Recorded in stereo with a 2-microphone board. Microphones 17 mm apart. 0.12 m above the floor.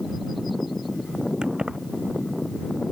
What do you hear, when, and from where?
1.4 s keys jangling: 80° right